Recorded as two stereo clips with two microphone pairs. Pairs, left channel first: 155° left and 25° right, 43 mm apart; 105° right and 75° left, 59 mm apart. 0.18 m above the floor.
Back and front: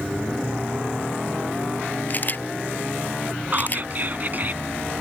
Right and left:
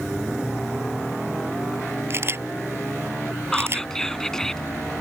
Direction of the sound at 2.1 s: 115° left.